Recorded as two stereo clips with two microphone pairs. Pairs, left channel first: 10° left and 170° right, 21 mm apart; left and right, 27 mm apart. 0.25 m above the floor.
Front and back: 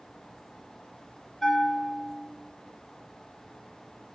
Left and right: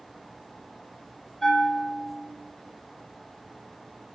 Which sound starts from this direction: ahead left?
A bell, at 1.4 s.